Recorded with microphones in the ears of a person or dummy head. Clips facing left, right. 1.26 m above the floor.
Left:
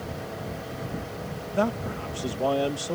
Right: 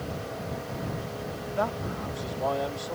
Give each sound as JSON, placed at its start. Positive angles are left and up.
{"t": 1.5, "sound": "a man speaking", "side_deg": 40}